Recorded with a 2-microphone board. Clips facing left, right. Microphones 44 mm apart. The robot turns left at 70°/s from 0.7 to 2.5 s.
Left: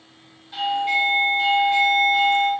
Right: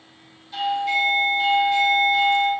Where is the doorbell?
145° left, 1.6 m; by 2.5 s 20° left, 1.6 m.